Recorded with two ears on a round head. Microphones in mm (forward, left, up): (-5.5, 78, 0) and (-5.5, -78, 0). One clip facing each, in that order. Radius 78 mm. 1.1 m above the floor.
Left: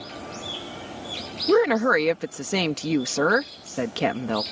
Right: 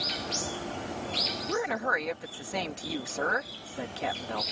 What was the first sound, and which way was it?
A woman speaking, 75° left (ahead or behind).